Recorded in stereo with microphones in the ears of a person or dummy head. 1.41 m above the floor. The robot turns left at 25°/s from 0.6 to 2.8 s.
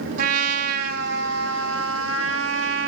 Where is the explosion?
No explosion in this recording.